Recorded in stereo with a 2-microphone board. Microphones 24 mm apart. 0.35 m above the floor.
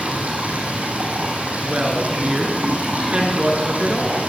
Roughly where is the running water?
Right.